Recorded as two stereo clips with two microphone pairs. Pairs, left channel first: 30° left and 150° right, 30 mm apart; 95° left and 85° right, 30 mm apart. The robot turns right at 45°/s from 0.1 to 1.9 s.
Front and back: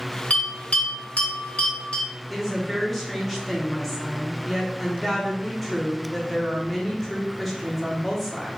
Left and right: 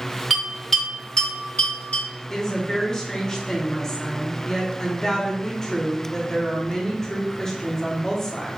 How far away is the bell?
About 1.5 m.